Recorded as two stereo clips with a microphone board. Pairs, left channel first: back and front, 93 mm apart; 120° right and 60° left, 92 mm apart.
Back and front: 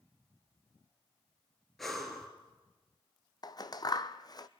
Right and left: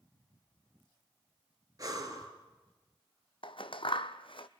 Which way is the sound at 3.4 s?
135° right.